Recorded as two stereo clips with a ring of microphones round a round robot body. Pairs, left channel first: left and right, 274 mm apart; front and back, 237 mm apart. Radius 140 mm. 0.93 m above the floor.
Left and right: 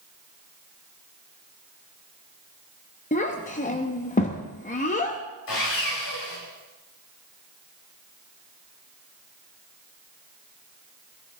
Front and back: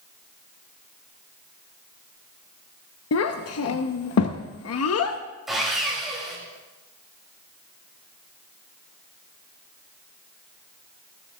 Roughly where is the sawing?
Left.